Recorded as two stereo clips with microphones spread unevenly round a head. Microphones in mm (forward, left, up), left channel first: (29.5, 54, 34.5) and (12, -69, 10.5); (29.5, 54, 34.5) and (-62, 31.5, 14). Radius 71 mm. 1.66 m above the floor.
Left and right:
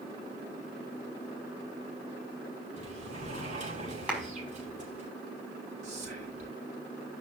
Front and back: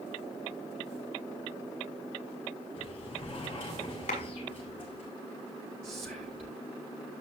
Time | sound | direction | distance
2.8 | a sliding door | 60° right | 7 m
4.1 | a clap | 15° right | 5.5 m
5.8 | whispering | 140° right | 6.5 m